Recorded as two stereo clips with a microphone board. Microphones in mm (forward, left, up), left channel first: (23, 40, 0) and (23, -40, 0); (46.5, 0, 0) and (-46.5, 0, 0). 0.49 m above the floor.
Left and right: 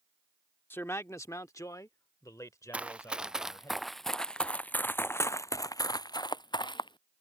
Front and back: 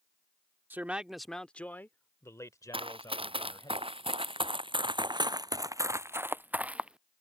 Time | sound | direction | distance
0.7 | a man speaking | 125° left | ?
2.7 | running footsteps | 165° right | ?